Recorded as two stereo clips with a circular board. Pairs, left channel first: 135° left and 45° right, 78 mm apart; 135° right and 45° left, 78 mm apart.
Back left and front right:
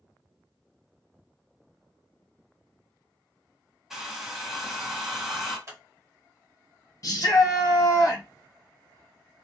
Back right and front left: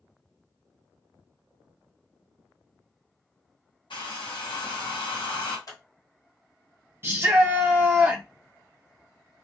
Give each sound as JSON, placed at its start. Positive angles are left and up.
{"t": 3.9, "sound": "a hair dryer", "azimuth_deg": -130, "distance_m": 1.0}
{"t": 5.7, "sound": "scissors", "azimuth_deg": -95, "distance_m": 1.2}
{"t": 7.0, "sound": "a shout", "azimuth_deg": 100, "distance_m": 1.1}